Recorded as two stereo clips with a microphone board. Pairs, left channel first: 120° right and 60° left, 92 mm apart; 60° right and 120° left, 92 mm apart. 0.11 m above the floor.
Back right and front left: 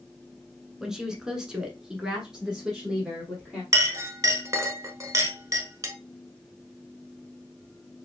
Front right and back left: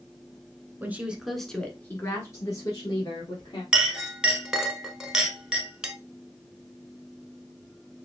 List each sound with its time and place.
0.8 s a woman speaking: 135° left, 1.1 m; by 3.6 s 25° right, 2 m
3.7 s a clink: 45° left, 0.9 m